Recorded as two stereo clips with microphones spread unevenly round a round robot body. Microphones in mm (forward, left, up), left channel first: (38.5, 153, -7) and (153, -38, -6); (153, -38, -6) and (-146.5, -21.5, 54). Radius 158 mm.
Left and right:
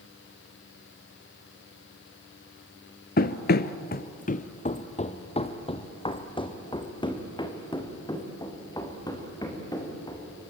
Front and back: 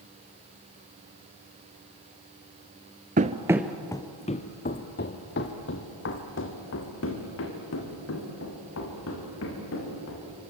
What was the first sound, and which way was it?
Running footsteps, 145° left.